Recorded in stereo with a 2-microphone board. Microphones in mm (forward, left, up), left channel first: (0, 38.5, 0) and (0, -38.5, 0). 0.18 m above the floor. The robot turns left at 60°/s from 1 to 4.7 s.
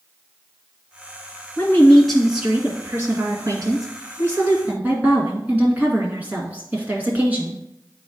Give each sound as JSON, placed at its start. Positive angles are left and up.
{"t": 1.6, "sound": "a woman speaking", "azimuth_deg": 40, "distance_m": 1.9}